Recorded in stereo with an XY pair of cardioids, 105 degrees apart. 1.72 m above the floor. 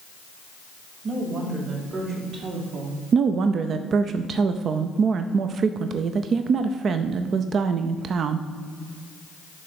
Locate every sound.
1.0 s a woman speaking: 55° right, 4 m; by 3.0 s 70° right, 3 m
3.1 s a woman speaking: 55° right, 0.5 m